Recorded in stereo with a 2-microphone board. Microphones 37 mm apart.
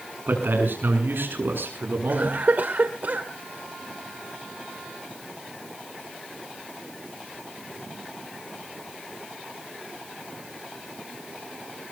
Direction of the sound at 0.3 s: 65° right (ahead or behind).